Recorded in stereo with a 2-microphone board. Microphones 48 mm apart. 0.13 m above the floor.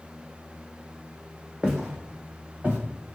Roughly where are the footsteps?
Centre.